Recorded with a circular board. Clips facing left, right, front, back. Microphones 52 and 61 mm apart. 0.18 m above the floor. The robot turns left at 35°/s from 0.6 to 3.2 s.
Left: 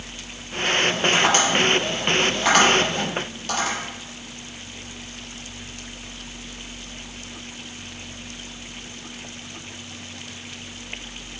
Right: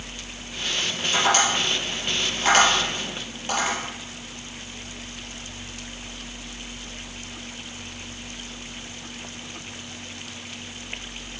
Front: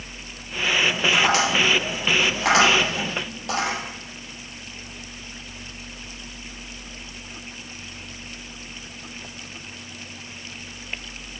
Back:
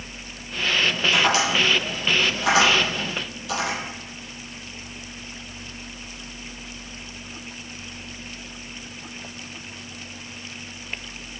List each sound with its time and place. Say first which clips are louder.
1.1 s tapping: right 1 dB, even; 55° left, 3.5 m; by 3.8 s 15° right, 3.5 m